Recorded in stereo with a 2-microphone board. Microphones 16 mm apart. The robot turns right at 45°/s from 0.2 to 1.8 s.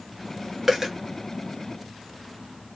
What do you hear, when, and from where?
0.7 s a dropped coin: 25° right (ahead or behind), 0.9 m; by 0.9 s 35° right (ahead or behind), 0.9 m